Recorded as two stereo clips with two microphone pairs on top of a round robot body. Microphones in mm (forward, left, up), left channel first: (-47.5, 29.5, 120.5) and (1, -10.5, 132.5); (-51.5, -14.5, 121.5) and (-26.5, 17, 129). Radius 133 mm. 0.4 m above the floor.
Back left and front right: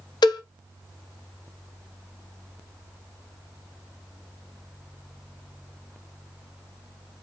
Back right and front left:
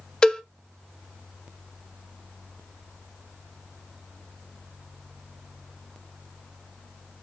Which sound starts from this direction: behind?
A cowbell, at 0.2 s.